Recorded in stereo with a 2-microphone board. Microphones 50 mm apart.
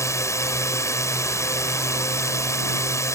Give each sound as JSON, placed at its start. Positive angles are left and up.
{"t": 0.0, "sound": "a drone", "side_deg": 75}